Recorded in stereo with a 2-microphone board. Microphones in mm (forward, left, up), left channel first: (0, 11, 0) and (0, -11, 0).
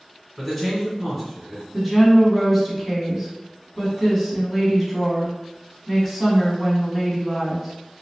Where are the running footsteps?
I don't hear running footsteps.